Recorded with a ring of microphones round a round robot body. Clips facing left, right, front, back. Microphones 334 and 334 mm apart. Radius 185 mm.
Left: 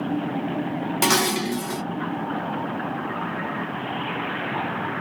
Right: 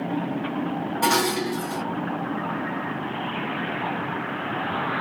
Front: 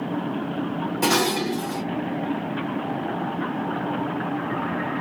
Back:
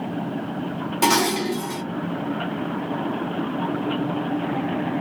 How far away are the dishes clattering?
About 0.7 m.